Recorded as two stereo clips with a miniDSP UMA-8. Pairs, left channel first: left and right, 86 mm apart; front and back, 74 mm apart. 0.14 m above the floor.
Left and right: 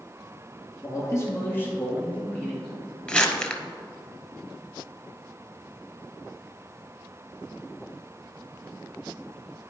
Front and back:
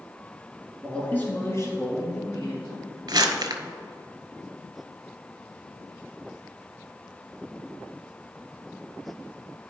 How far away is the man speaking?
About 1.7 m.